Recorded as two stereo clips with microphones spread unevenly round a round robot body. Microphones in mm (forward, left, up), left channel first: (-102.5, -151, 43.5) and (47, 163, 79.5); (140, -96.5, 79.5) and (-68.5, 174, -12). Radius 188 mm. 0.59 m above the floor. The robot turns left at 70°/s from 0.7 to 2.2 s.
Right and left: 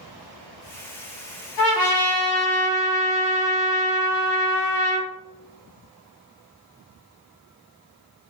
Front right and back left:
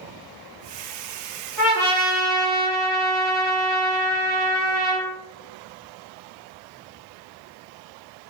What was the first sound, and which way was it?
A trumpet, 135° right.